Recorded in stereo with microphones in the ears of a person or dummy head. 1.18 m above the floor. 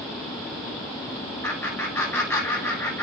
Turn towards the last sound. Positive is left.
turn(degrees=20)  # may be behind; listen again after turning